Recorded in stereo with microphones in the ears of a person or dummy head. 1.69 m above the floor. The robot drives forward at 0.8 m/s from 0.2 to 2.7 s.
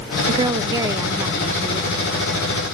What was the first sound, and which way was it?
A woman speaking, 30° right (ahead or behind).